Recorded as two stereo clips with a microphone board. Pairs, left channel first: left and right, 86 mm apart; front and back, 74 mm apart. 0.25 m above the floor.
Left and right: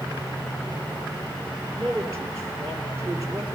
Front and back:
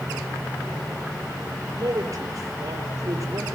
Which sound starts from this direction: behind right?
A man speaking, at 1.8 s.